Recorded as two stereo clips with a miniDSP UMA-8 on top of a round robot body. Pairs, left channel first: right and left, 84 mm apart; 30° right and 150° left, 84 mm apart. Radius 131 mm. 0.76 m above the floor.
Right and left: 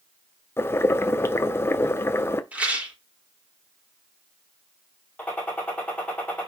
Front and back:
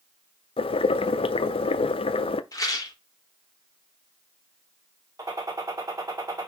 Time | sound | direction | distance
0.6 | boiling | 25° right | 0.6 m
2.5 | a rattle | 15° left | 3.5 m
5.2 | a gunshot | 165° right | 5 m